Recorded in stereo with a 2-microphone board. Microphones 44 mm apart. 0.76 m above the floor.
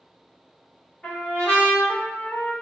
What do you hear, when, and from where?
1.0 s a trumpet: 30° left (ahead or behind), 1.5 m